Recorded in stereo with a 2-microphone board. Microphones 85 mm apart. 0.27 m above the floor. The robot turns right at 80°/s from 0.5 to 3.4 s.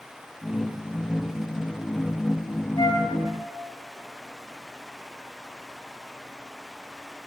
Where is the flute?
55° left (ahead or behind), 1.5 m.